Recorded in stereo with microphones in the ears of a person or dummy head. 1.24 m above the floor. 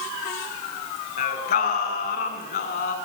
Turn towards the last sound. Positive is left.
turn(degrees=45)  # may be behind; listen again after turning